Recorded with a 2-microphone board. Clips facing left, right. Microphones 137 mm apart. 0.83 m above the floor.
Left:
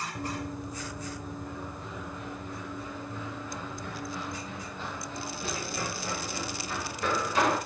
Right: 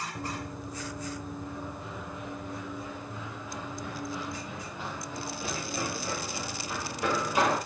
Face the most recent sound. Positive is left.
turn(degrees=-10)  # may be behind; listen again after turning